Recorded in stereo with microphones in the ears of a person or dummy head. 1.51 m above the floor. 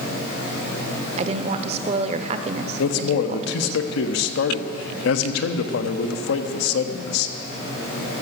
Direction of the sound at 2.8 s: 70° left (ahead or behind).